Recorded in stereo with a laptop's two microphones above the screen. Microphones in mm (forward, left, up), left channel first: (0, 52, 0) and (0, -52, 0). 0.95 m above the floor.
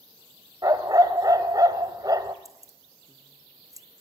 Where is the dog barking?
35° right (ahead or behind), 1.8 m.